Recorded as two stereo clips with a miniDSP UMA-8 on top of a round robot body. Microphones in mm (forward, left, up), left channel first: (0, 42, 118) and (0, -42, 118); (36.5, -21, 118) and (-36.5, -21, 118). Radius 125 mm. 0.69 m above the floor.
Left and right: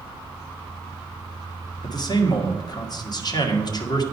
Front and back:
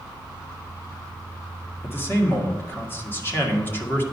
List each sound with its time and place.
1.8 s a man speaking: 60° left, 1.7 m